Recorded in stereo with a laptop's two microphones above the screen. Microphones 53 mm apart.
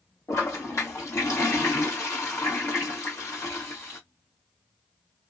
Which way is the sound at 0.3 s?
75° left (ahead or behind).